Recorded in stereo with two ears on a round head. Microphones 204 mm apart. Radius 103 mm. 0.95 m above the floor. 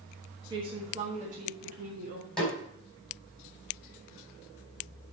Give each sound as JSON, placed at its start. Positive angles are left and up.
{"t": 0.5, "sound": "a woman speaking", "side_deg": -20, "distance_m": 1.4}
{"t": 2.4, "sound": "a snare drum", "side_deg": 5, "distance_m": 4.5}